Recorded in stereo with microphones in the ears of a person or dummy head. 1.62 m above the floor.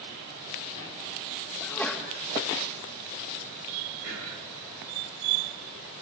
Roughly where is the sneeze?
Centre.